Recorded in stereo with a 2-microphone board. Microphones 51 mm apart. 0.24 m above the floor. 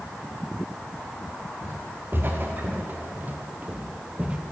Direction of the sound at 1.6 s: 45° right (ahead or behind).